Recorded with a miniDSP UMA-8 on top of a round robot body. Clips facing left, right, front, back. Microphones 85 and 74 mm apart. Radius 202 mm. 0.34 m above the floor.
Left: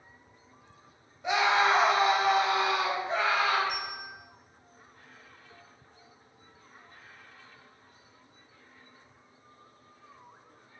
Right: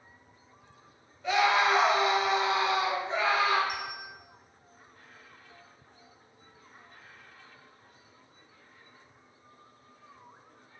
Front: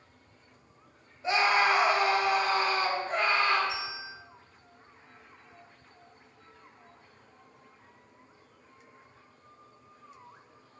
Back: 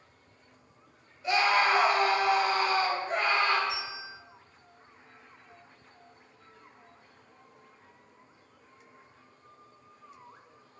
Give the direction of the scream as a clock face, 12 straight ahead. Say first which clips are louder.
Even, even; 11 o'clock.